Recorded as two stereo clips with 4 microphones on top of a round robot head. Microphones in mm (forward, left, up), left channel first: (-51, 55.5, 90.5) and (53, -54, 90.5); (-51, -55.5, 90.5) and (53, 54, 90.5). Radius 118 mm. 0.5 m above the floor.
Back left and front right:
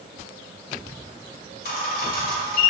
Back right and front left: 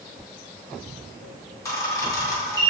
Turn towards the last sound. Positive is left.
turn(degrees=155)